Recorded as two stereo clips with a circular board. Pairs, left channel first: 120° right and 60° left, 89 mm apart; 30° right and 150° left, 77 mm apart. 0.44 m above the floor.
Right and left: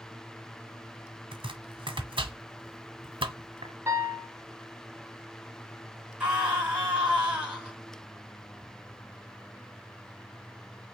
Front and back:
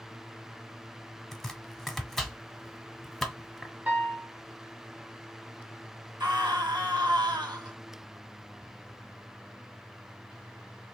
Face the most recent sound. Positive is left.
turn(degrees=135)